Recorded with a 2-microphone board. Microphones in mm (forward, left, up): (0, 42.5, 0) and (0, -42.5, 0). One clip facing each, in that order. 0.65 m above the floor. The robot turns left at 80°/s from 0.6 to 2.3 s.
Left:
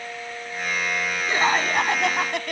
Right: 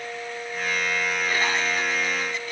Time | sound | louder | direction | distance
1.3 | laughter | left 7 dB | 155° left | ?